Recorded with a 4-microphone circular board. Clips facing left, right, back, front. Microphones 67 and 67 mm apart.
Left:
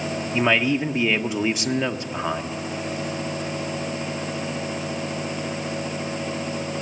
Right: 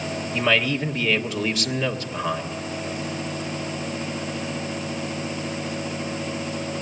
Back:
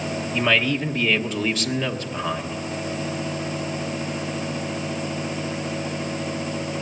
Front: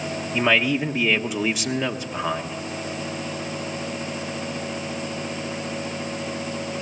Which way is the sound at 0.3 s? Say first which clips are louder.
Left 2 dB, front 1 dB; 60° left.